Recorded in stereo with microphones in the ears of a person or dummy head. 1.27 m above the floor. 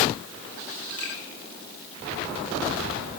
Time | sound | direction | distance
1.0 | a finger snap | 10° left (ahead or behind) | 5 m